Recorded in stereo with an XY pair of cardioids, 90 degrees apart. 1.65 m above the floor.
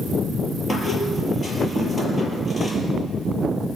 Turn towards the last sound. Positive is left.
turn(degrees=30)